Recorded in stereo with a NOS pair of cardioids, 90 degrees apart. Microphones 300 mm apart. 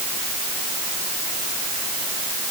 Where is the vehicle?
I don't hear a vehicle.